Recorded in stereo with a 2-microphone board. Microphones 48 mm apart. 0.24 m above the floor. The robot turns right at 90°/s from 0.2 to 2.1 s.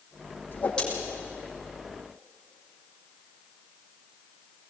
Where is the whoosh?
40° left (ahead or behind), 8 m; by 0.8 s 15° left (ahead or behind), 8 m.